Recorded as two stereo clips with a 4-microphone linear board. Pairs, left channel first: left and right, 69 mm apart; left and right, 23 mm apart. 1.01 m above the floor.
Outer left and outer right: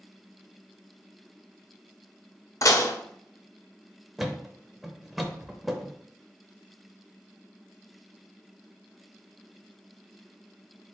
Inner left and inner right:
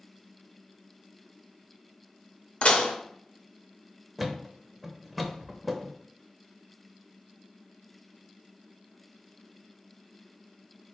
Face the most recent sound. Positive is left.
turn(degrees=0)  # may be behind; listen again after turning